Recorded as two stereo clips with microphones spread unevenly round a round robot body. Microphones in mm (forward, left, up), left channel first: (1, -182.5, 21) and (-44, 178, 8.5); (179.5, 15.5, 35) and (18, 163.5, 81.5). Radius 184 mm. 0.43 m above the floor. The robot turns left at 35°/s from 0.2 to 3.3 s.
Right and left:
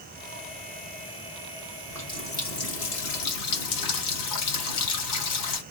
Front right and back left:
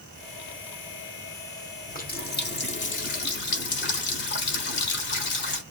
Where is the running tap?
5° left, 1.3 m; by 5.6 s 45° right, 1.3 m.